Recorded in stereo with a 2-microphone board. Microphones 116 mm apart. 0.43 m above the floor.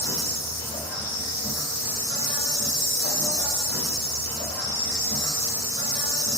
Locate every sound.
0.0 s an insect: 30° left (ahead or behind), 1.6 m